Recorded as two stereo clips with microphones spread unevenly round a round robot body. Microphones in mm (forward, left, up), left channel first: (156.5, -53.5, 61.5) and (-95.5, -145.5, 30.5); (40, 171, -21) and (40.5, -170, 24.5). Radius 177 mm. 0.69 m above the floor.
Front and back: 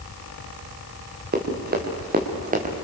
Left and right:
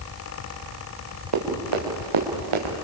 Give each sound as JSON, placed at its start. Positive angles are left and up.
{"t": 1.3, "sound": "running footsteps", "azimuth_deg": -105, "distance_m": 5.5}